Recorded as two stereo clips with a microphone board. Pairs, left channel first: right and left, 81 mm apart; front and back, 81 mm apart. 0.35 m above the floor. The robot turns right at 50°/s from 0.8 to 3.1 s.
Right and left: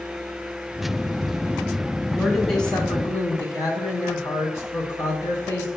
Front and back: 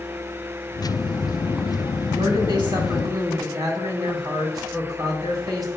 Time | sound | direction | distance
2.1 | a woman speaking | 165° left | 3 m